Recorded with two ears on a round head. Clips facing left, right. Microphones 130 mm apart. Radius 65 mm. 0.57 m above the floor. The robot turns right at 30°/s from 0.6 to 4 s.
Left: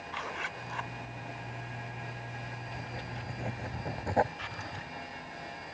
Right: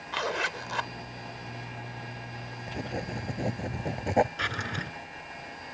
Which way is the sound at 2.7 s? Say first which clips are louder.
Right 11 dB; 65° right.